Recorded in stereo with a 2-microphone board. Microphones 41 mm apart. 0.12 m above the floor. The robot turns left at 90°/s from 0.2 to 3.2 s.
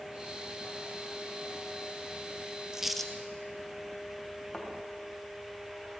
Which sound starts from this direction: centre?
A thud, at 4.5 s.